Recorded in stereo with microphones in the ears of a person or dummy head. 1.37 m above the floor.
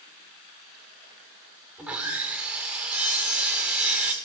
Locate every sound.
1.8 s sawing: 10° right (ahead or behind), 1.7 m